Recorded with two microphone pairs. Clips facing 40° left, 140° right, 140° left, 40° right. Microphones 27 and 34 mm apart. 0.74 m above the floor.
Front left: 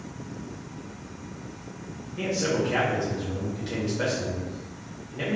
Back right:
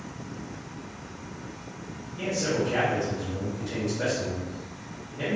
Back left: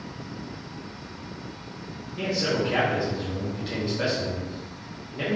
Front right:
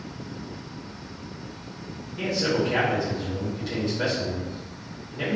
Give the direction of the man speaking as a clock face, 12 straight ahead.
10 o'clock.